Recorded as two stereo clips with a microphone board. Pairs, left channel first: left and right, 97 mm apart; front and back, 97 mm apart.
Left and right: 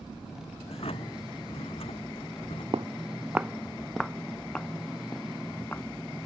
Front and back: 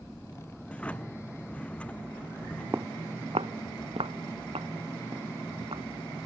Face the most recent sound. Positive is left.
turn(degrees=165)